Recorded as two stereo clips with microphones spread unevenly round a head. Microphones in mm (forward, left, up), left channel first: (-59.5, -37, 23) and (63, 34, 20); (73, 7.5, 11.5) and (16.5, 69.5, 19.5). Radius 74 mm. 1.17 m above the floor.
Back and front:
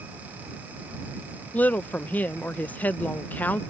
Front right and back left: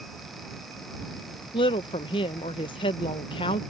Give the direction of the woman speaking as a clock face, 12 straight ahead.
2 o'clock.